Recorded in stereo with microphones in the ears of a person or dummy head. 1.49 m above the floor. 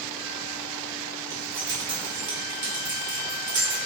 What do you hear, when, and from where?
1.3 s keys jangling: 65° right (ahead or behind), 1.3 m